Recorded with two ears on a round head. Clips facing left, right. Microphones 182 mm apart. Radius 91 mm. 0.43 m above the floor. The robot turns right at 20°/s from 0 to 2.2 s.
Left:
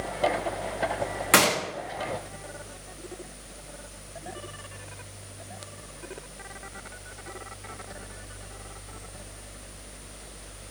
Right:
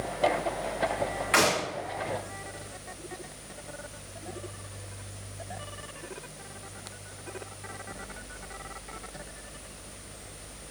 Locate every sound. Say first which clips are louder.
1.3 s a gunshot: left 2 dB; 60° left (ahead or behind), 6.5 m; by 1.6 s 55° left (ahead or behind), 6.5 m